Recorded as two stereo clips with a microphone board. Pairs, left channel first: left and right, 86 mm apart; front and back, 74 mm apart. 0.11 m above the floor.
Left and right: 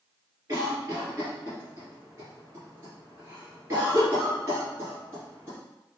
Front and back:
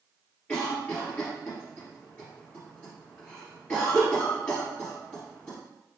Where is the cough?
60° right, 2.0 m.